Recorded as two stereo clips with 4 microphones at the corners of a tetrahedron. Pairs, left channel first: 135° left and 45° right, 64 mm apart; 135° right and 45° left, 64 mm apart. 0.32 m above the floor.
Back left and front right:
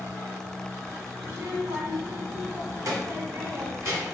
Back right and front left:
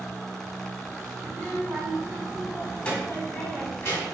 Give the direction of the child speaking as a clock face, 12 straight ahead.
1 o'clock.